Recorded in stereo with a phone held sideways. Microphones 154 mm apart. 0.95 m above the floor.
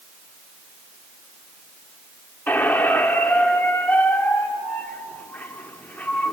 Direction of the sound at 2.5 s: 10° left (ahead or behind).